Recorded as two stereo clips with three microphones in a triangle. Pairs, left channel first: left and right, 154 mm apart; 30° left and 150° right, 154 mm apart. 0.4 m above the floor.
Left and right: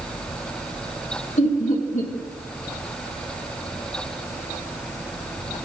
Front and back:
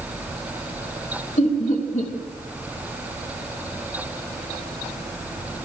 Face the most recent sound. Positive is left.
turn(degrees=60)